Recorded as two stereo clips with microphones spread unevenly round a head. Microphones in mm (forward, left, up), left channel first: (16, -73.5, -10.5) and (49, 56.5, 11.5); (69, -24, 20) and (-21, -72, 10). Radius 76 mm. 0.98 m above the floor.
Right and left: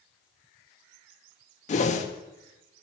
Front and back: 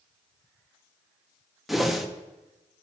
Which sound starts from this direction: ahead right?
A whoosh, at 1.7 s.